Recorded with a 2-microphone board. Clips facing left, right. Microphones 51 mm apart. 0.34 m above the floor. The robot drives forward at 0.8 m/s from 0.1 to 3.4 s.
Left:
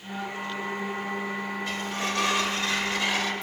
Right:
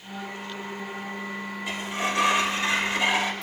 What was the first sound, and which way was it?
A sliding door, 15° right (ahead or behind).